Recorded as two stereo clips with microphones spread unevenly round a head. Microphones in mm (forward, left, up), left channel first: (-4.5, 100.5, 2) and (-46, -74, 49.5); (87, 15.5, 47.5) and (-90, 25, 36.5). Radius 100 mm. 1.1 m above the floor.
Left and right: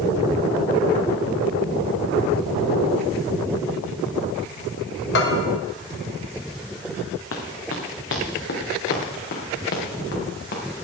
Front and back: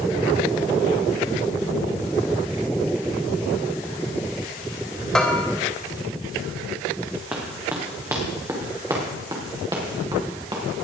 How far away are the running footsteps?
About 3.5 m.